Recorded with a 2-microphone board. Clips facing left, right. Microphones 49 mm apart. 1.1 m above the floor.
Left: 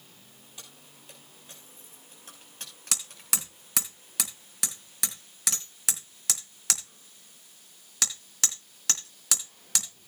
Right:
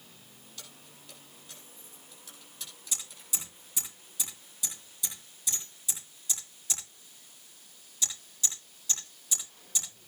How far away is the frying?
I don't hear frying.